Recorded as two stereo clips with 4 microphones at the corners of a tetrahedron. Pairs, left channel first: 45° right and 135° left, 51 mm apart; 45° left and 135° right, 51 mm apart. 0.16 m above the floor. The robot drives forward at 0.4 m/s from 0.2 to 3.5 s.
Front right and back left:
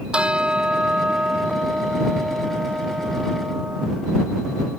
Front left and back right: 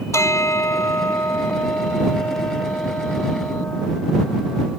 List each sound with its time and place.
0.1 s a bell: 65° left; by 3.9 s 85° left